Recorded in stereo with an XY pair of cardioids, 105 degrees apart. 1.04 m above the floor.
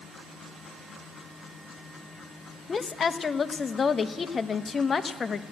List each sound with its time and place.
2.7 s a woman speaking: 35° left, 0.8 m